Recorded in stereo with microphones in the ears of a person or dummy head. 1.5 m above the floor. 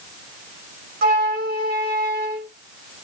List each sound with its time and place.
1.0 s a flute: 50° right (ahead or behind), 1.1 m